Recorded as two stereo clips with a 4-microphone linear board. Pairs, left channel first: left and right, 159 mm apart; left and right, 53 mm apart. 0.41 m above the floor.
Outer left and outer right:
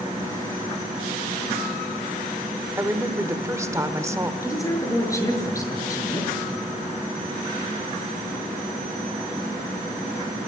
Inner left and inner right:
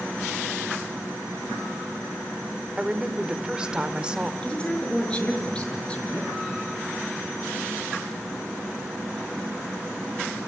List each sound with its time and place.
2.8 s a woman speaking: 20° right (ahead or behind), 1.3 m
4.4 s a woman speaking: 20° left (ahead or behind), 6 m